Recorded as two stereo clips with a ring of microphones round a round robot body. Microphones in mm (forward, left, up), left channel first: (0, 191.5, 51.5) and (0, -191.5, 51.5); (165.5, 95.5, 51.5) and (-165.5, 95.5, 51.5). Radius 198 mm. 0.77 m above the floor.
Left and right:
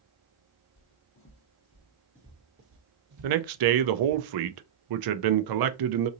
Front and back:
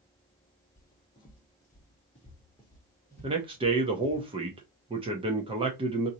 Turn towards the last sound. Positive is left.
turn(degrees=-105)